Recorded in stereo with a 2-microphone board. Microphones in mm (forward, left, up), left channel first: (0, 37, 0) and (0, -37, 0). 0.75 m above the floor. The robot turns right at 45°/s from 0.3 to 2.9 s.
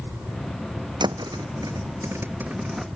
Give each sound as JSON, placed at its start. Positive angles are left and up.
{"t": 1.0, "sound": "a thud", "side_deg": -85}